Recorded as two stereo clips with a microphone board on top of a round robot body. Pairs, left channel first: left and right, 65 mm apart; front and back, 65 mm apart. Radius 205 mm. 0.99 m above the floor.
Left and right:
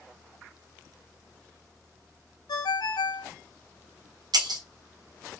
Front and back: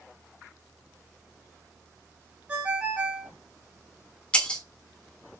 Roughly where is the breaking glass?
Right.